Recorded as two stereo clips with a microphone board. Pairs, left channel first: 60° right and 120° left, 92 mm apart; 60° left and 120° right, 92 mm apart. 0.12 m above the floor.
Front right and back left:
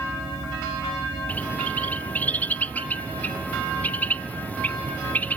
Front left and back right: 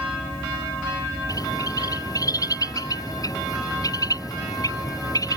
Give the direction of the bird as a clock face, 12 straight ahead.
12 o'clock.